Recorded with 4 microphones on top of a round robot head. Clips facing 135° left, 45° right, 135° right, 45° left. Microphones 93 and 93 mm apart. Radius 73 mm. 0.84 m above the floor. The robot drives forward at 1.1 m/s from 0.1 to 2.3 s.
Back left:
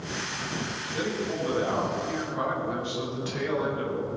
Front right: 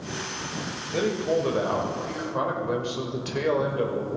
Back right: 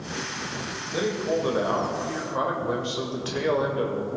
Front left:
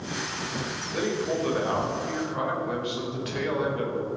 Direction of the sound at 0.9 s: 60° right.